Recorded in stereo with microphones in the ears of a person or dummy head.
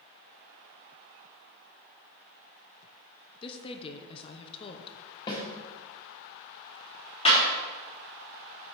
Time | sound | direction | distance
3.4 | a woman speaking | 30° left (ahead or behind) | 0.6 m
5.3 | a snare drum | 25° left (ahead or behind) | 1.6 m
7.2 | a clap | 35° left (ahead or behind) | 3 m